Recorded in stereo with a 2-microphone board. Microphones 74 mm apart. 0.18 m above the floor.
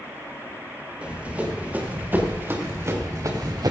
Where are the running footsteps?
15° right (ahead or behind), 5.5 m; by 3.7 s 60° right (ahead or behind), 2.5 m.